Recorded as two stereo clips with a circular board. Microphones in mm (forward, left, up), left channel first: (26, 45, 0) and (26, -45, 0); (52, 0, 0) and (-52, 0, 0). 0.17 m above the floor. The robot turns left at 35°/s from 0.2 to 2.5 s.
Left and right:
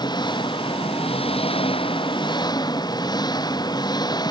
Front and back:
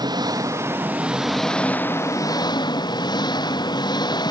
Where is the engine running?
130° left; by 4.3 s 50° left.